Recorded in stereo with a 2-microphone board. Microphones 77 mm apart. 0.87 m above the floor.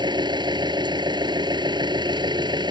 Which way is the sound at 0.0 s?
70° right (ahead or behind).